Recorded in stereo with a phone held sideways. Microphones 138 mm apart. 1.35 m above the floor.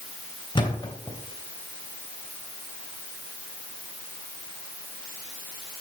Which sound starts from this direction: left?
A thud, at 0.6 s.